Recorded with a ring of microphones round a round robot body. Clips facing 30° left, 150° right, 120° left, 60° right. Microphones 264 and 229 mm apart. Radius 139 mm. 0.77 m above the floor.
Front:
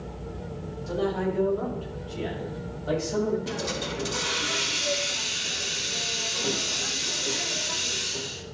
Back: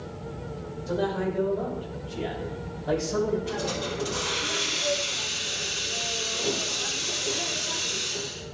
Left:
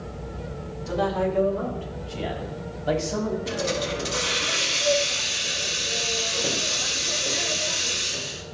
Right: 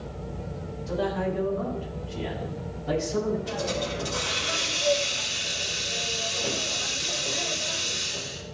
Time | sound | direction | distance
0.9 | a man speaking | 95° left | 4 m
3.5 | a hiss | 65° left | 1.5 m